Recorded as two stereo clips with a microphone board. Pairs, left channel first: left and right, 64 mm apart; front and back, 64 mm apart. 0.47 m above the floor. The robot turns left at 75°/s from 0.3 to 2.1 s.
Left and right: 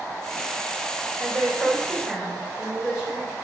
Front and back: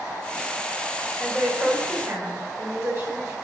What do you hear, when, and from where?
1.2 s a woman speaking: 105° right, 1.9 m; by 3.4 s 170° right, 1.9 m